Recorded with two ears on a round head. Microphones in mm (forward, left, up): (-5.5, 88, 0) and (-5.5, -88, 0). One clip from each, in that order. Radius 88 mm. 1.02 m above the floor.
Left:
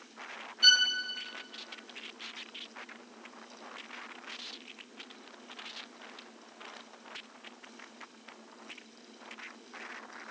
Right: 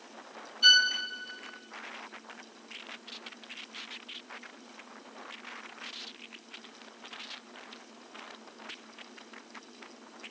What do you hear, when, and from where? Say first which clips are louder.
0.6 s a violin: right 2 dB; 5° left (ahead or behind), 1.2 m